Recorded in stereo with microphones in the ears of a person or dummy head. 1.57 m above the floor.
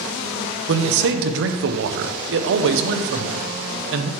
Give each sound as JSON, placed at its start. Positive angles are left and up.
{"t": 0.7, "sound": "a man speaking", "side_deg": -65, "distance_m": 0.7}